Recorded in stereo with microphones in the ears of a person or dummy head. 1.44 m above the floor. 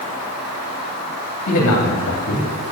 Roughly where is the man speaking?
Left.